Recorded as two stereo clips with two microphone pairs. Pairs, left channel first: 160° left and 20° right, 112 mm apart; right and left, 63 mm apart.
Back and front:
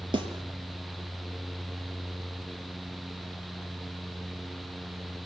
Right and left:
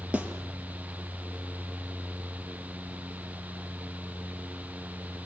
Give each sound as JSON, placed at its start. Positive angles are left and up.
{"t": 0.1, "sound": "a snare drum", "azimuth_deg": 20, "distance_m": 4.5}